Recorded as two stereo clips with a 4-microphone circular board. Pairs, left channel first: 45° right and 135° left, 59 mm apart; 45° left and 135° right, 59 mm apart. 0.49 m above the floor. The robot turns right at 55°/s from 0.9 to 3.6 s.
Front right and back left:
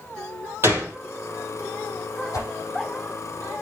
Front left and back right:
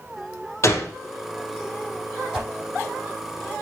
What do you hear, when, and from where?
0.6 s a gunshot: 85° left, 3 m; by 0.9 s 90° left, 3 m
2.3 s a whoosh: 55° right, 5 m; by 2.5 s 45° right, 5 m